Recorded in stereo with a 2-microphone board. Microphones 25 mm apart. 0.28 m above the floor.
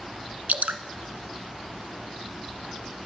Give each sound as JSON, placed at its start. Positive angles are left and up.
{"t": 0.5, "sound": "dripping", "side_deg": -80, "distance_m": 0.7}